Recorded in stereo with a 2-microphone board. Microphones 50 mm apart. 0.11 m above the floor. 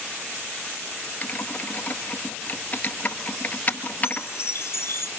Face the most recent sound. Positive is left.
turn(degrees=60)  # may be behind; listen again after turning